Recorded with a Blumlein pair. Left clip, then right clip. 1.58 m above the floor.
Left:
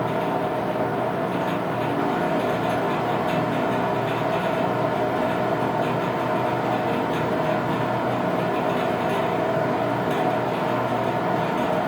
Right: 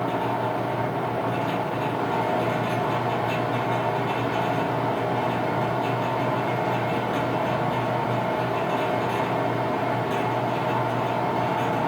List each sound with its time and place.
0.0 s a machine running: 55° left, 1.2 m